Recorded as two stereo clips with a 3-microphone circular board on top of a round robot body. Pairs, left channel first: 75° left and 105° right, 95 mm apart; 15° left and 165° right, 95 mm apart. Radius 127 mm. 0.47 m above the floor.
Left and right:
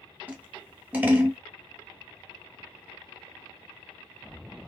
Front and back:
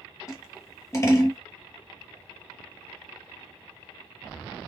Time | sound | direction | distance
0.3 | scissors | 35° right | 1.2 m